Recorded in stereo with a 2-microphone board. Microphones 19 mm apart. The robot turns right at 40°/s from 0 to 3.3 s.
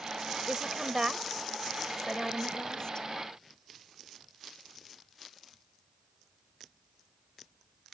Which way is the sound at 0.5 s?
55° right (ahead or behind).